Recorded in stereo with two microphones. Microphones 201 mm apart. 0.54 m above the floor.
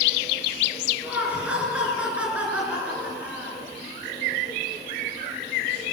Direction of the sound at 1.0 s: 5° right (ahead or behind).